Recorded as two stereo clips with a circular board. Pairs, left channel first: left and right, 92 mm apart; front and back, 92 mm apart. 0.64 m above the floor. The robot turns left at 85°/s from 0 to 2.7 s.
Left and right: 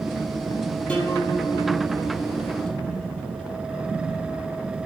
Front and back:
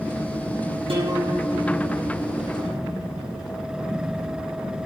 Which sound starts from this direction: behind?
A guitar, at 0.9 s.